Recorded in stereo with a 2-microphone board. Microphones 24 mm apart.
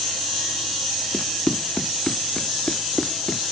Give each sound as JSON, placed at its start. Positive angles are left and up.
{"t": 1.1, "sound": "running footsteps", "side_deg": 40}